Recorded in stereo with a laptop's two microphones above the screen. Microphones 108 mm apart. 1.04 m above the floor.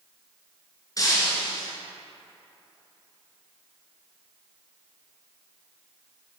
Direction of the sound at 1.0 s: 35° left (ahead or behind).